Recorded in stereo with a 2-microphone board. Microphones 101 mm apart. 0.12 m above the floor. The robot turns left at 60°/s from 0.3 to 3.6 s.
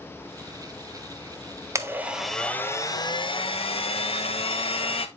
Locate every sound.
1.8 s a blender: 150° right, 0.6 m; by 5.1 s 100° left, 0.6 m